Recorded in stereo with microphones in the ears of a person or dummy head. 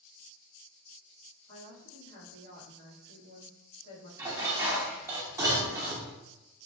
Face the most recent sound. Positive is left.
turn(degrees=-15)  # may be behind; listen again after turning